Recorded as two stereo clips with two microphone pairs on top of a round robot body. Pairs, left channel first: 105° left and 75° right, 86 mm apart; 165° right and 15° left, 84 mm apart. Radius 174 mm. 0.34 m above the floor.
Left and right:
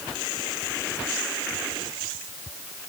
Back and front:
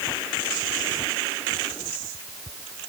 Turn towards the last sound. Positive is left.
No sound to turn to.